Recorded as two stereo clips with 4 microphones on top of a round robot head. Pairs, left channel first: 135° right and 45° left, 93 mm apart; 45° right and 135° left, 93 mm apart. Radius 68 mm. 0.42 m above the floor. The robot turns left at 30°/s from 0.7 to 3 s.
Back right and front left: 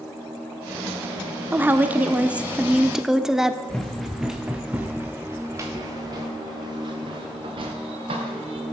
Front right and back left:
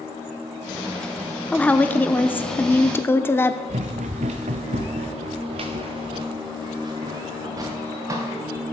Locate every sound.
1.5 s a woman speaking: 10° left, 0.8 m; by 3.6 s 35° right, 0.8 m
3.7 s running footsteps: 140° left, 2 m; by 8.6 s 75° left, 4 m